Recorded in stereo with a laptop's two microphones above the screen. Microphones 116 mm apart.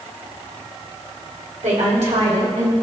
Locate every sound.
1.6 s a woman speaking: 85° right, 3.5 m; by 2.7 s 70° right (ahead or behind), 4.5 m